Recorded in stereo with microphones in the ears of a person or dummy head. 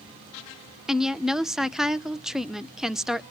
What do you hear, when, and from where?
0.9 s a woman speaking: centre (ahead or behind), 0.6 m